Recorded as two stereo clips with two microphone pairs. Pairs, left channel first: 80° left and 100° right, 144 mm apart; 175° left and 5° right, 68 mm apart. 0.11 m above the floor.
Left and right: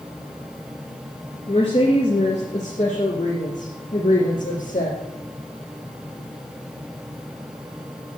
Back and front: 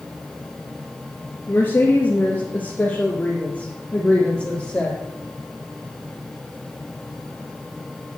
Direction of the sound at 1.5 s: 120° left.